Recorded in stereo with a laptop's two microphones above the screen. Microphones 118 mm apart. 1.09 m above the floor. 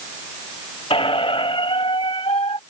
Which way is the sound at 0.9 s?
50° left (ahead or behind).